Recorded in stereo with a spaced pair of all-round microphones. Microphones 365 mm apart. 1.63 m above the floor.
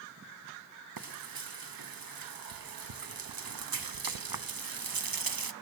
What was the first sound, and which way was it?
Frying, 70° right (ahead or behind).